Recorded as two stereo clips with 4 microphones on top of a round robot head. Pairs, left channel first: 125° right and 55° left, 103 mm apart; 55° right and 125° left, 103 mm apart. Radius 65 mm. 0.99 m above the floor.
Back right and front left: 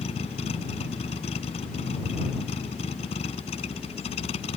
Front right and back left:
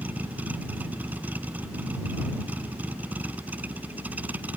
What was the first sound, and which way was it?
A vehicle, 155° right.